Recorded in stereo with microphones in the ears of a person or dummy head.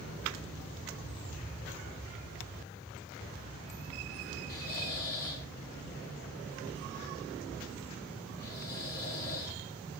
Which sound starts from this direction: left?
Snoring, at 4.5 s.